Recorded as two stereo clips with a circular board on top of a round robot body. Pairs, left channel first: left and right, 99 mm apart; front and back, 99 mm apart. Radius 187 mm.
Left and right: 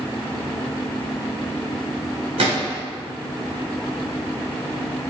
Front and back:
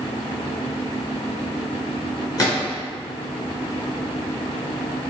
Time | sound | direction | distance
2.4 | a gunshot | 55° right | 1.8 m